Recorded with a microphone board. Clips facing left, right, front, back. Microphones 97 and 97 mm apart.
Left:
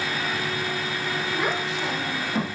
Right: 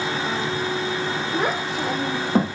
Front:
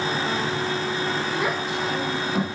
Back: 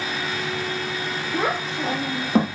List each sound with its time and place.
1.3 s a child speaking: 130° right, 3 m